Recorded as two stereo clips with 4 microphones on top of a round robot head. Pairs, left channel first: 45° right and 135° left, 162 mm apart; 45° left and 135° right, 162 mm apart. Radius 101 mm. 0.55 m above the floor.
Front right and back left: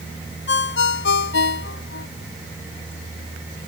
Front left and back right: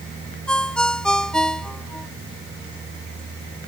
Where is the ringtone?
40° right.